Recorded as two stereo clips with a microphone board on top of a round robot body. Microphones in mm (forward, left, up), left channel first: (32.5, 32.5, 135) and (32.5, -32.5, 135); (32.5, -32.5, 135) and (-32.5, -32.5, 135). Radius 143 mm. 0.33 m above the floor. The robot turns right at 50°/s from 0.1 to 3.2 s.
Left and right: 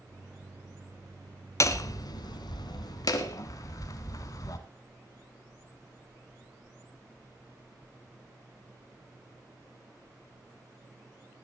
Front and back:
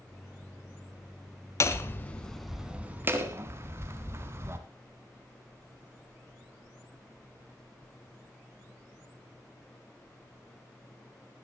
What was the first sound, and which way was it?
Hammering, 45° left.